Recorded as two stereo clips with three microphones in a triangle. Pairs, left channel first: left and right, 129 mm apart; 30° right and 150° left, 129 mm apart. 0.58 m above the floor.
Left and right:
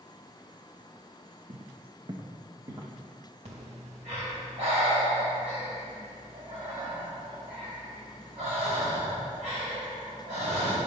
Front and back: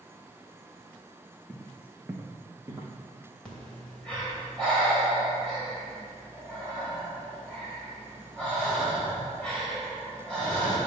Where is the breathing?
110° right, 2.5 m.